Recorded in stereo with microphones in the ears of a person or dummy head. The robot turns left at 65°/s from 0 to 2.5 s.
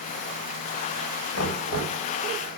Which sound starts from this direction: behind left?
Knocking, at 1.3 s.